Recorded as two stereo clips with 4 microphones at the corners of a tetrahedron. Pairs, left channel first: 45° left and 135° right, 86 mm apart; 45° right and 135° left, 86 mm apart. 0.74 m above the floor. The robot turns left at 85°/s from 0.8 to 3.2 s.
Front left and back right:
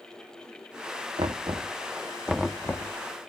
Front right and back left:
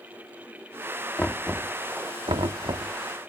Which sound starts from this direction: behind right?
Knocking, at 1.2 s.